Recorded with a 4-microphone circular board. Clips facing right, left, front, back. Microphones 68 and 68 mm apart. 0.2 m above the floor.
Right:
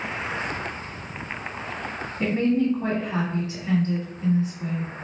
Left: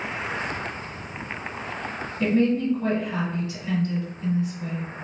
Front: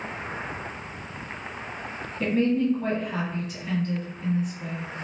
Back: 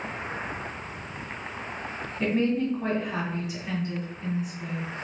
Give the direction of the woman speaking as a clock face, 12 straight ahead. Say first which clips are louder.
Left 1 dB, front 2 dB; 4 o'clock.